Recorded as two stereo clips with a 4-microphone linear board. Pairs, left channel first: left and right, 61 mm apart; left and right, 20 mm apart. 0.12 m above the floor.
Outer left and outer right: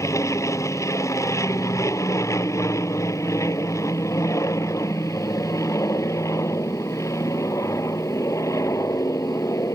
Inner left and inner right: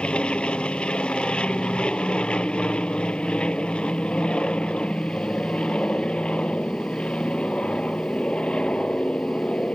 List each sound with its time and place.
0.0 s an aircraft: 60° left (ahead or behind)